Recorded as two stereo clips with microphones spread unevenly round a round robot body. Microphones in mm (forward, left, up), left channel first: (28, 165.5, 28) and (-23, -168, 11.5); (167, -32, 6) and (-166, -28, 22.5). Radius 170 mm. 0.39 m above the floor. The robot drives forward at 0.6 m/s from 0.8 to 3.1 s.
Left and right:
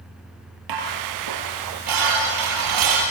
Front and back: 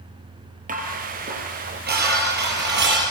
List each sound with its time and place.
0.7 s dishes clattering: 115° right, 6.5 m; by 3.1 s 125° right, 7.5 m